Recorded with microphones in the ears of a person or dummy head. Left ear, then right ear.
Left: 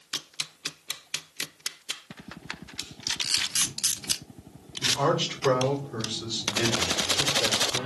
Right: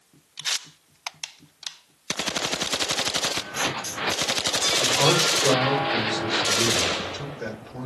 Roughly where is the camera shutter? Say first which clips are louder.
Right 1 dB; left.